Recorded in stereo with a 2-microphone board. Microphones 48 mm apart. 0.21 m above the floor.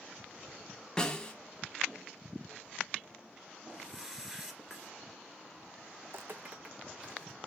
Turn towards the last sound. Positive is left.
turn(degrees=-5)  # may be behind; listen again after turning